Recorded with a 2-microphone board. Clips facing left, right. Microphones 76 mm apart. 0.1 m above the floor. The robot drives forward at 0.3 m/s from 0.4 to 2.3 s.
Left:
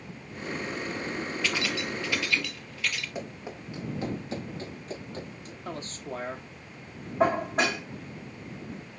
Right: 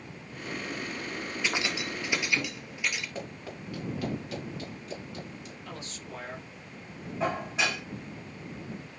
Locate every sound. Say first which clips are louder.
1.4 s keys jangling: right 1 dB; 20° right (ahead or behind), 1.7 m
3.1 s running footsteps: left 1 dB; 15° left (ahead or behind), 4 m; by 5.5 s 40° left (ahead or behind), 6 m
5.7 s a man speaking: left 8 dB; 40° left (ahead or behind), 2.5 m
7.2 s dishes clattering: left 6 dB; 45° left (ahead or behind), 3.5 m